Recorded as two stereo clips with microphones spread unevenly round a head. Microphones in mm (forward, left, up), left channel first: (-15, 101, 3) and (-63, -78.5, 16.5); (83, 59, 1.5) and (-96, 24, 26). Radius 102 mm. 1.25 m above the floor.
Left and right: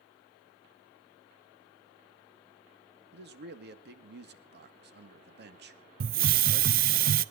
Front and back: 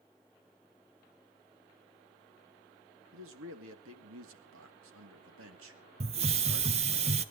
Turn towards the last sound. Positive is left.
turn(degrees=-125)